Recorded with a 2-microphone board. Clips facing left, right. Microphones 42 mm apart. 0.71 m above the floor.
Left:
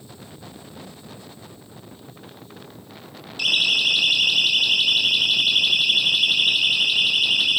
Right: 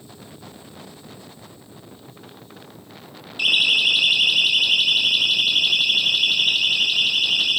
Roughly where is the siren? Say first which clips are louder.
Right 2 dB; right.